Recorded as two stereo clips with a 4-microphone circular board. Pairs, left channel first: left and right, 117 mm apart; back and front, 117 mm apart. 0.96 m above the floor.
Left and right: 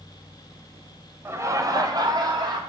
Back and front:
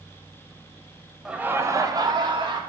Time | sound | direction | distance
1.2 | laughter | 75° right | 0.7 m